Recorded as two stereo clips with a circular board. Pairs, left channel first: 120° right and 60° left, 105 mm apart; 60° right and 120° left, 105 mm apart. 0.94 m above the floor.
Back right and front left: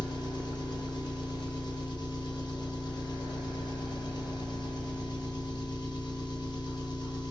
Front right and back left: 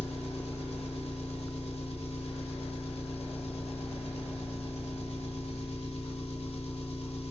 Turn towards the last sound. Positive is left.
turn(degrees=-75)